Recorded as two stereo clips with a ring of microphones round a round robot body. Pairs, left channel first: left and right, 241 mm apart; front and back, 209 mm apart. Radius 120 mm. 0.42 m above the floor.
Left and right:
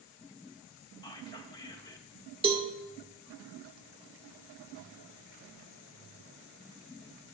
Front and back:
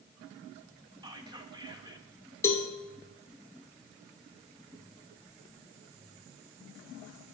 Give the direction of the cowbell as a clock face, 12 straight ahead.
2 o'clock.